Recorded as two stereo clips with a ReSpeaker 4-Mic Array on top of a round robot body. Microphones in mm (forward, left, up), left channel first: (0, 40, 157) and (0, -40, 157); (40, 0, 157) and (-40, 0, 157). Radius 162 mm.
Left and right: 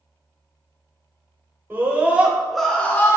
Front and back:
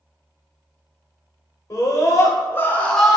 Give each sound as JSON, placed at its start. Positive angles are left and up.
{"t": 1.7, "sound": "a scream", "azimuth_deg": -30, "distance_m": 1.5}